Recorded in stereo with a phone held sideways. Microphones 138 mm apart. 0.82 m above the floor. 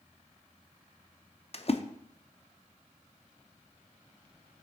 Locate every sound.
1.5 s a splash: 50° left (ahead or behind), 0.6 m